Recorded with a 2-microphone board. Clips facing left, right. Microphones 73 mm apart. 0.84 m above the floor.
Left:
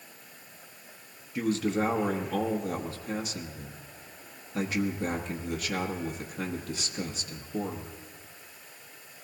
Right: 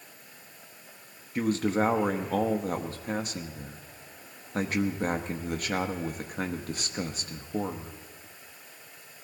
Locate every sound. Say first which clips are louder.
1.4 s a man speaking: right 2 dB; 45° right (ahead or behind), 1.1 m